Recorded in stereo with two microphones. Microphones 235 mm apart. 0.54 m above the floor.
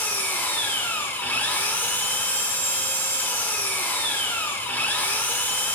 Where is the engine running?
10° left (ahead or behind), 0.8 m.